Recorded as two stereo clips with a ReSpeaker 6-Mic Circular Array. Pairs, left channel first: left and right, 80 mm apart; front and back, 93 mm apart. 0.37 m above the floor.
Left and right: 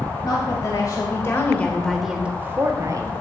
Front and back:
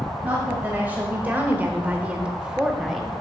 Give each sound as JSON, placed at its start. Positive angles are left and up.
{"t": 0.2, "sound": "a woman speaking", "azimuth_deg": 110, "distance_m": 1.9}